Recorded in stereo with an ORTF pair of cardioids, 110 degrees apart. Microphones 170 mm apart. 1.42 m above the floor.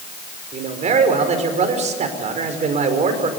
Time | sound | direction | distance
0.5 | a man speaking | 45° right | 5 m